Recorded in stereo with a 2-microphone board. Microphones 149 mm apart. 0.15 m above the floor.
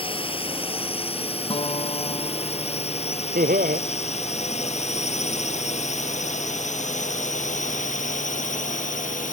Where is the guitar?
35° left (ahead or behind).